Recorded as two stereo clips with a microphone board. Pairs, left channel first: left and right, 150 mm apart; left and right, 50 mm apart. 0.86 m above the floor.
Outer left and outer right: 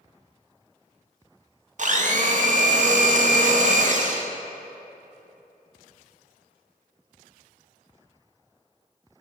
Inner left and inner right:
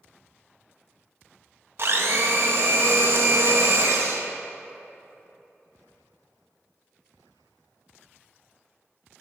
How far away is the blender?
About 0.5 m.